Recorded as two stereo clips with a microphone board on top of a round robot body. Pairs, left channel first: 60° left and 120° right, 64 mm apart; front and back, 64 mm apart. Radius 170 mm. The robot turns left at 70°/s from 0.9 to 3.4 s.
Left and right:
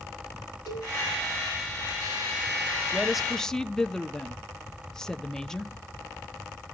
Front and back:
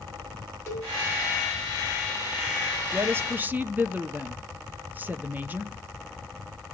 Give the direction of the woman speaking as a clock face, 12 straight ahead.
6 o'clock.